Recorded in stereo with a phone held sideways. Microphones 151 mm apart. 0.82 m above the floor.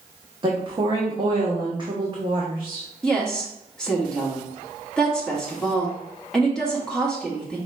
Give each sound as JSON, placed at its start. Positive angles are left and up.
{"t": 0.4, "sound": "a woman speaking", "side_deg": -30, "distance_m": 0.9}
{"t": 3.0, "sound": "a woman speaking", "side_deg": 5, "distance_m": 1.4}